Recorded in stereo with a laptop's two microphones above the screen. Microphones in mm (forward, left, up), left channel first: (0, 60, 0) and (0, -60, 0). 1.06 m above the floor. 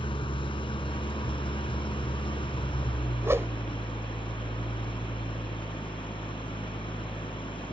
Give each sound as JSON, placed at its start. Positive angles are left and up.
{"t": 0.0, "sound": "an engine running", "side_deg": 45}
{"t": 3.2, "sound": "a whoosh", "side_deg": -20}